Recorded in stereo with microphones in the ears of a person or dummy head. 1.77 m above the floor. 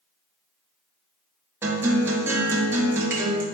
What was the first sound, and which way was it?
A guitar, 10° right (ahead or behind).